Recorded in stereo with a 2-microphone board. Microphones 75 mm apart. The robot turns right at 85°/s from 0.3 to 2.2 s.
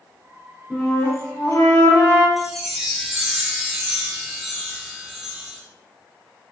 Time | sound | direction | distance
0.7 | a flute | 5° left | 2 m
2.4 | a chime | 5° right (ahead or behind) | 0.9 m